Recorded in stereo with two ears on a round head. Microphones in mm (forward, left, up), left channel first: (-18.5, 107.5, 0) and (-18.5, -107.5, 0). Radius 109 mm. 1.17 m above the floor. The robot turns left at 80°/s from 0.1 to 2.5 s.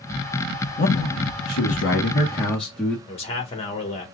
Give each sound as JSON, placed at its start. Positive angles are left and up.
{"t": 0.8, "sound": "a man speaking", "azimuth_deg": 140, "distance_m": 1.1}
{"t": 3.1, "sound": "a man speaking", "side_deg": 25, "distance_m": 1.4}